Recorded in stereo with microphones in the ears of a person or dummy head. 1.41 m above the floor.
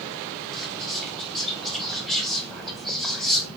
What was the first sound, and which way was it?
Whispering, centre (ahead or behind).